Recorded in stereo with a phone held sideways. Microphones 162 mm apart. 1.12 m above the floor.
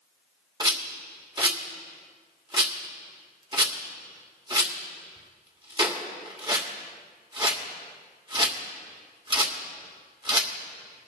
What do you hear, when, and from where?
0.6 s a rattle: 30° right (ahead or behind), 1.4 m